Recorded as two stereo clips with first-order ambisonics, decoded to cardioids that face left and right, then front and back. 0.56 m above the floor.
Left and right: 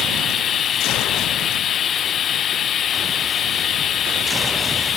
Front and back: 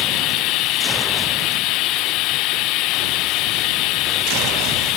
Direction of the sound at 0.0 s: 30° left.